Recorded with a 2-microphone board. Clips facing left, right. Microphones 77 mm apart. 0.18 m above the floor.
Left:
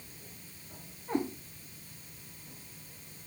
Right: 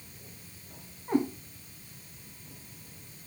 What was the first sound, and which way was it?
A cat meowing, 35° right (ahead or behind).